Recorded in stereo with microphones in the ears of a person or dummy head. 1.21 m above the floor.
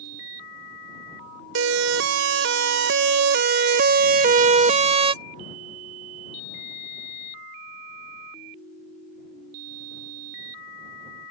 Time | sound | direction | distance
1.6 | a siren | 65° right (ahead or behind) | ?